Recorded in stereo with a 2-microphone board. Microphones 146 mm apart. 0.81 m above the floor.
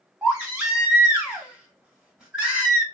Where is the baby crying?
Centre (ahead or behind), 1.8 m.